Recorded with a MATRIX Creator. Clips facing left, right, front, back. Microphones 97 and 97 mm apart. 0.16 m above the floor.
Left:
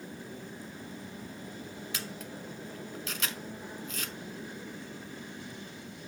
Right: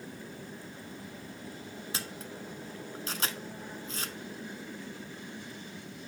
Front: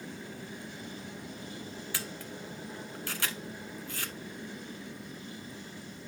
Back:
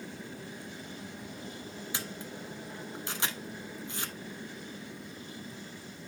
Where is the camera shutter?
125° right, 0.8 m.